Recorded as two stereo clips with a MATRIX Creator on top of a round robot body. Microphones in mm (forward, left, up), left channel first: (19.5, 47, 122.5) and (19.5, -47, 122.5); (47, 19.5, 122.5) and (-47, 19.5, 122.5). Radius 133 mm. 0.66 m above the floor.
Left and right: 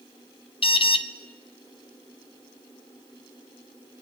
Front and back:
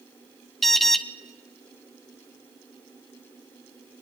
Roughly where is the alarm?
Left.